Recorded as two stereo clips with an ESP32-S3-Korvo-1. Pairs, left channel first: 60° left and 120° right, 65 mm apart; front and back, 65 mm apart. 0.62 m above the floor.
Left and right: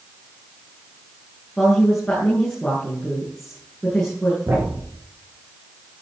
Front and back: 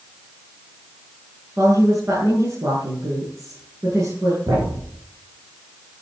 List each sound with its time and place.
1.6 s a woman speaking: 145° left, 9 m
4.5 s a thud: 165° right, 10 m